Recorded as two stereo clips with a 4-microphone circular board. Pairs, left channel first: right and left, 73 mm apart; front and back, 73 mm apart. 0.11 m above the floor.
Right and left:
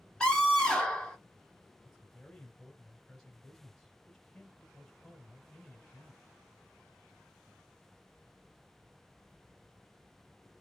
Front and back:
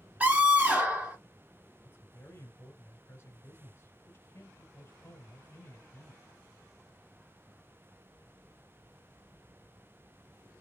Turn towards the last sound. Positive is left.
turn(degrees=-10)